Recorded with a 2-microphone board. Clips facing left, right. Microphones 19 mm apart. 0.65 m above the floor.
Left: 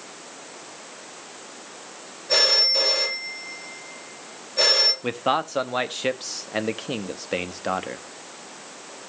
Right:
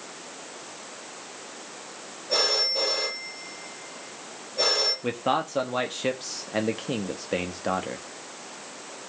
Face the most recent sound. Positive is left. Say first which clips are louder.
# left 2 dB
turn(degrees=15)  # may be behind; listen again after turning